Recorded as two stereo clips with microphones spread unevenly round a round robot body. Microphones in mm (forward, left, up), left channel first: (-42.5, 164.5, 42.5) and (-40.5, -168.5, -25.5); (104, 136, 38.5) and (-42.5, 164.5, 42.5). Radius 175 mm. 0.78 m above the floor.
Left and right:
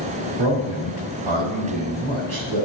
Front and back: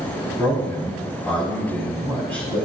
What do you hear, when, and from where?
0.4 s a man speaking: 95° right, 5 m